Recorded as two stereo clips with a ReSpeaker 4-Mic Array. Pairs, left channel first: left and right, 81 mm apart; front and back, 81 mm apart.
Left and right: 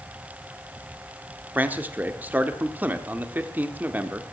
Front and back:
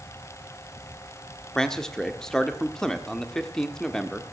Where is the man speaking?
75° right, 1.1 m.